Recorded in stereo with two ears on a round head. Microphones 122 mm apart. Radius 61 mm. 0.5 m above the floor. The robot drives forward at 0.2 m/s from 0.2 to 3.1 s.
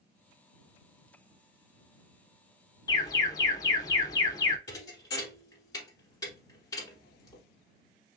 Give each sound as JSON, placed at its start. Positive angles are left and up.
{"t": 2.9, "sound": "an alarm", "side_deg": 30, "distance_m": 0.6}
{"t": 4.7, "sound": "a thud", "side_deg": 25, "distance_m": 1.1}